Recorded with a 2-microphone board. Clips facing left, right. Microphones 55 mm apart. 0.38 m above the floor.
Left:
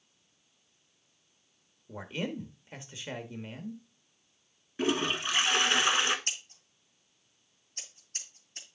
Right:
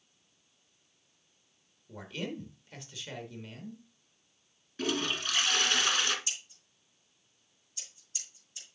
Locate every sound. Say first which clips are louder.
1.9 s a man speaking: left 3 dB; 25° left (ahead or behind), 0.9 m
4.8 s a toilet flushing: left 3 dB; 25° left (ahead or behind), 0.9 m
6.3 s scissors: left 3 dB; 60° left (ahead or behind), 2 m